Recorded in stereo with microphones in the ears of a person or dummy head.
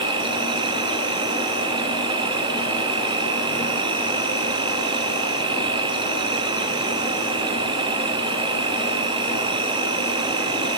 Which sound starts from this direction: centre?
An insect, at 0.0 s.